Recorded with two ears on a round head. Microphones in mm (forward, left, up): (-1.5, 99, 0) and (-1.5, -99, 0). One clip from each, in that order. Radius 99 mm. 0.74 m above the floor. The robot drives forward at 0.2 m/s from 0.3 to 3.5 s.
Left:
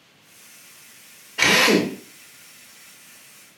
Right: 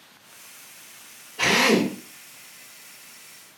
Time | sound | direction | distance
1.4 | a drill | 65° left (ahead or behind) | 1.1 m